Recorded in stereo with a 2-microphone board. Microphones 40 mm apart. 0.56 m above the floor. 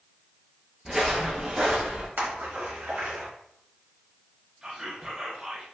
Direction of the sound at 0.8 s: 10° right (ahead or behind).